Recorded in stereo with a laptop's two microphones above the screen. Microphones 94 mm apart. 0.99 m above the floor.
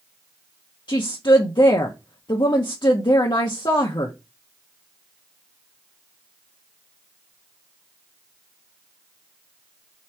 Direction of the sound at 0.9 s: 50° left (ahead or behind).